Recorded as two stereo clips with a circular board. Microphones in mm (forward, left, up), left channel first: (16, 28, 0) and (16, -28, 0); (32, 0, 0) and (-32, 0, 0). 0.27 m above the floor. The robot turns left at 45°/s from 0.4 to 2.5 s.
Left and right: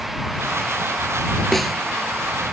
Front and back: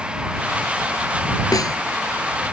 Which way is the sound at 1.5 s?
5° left.